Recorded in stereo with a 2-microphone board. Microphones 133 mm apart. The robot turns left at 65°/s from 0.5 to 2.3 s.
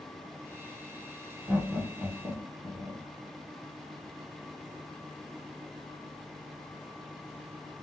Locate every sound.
1.5 s laughter: 5° right (ahead or behind), 1.7 m; by 3.0 s 25° right (ahead or behind), 1.7 m